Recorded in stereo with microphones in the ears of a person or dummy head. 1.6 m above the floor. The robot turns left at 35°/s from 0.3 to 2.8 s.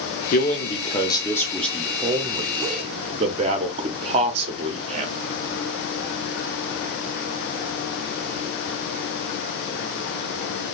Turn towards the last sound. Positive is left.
turn(degrees=-35)